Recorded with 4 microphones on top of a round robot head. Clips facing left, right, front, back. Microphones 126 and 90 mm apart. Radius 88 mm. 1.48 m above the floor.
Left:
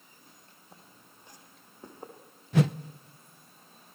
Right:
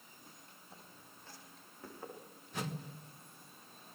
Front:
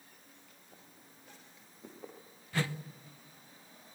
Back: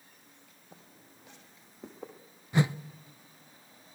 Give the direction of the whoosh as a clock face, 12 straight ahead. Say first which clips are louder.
Left 16 dB, back 7 dB; 8 o'clock.